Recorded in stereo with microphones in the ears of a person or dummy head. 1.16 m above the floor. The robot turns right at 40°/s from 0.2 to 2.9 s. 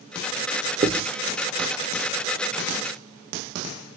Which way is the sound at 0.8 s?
25° right (ahead or behind).